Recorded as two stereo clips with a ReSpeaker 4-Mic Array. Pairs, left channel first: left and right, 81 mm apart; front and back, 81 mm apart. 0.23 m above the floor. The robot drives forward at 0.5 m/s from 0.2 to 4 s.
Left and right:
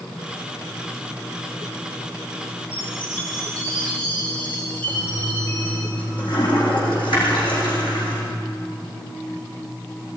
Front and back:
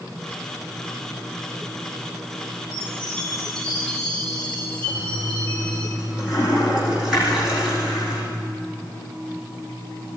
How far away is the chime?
About 8.5 m.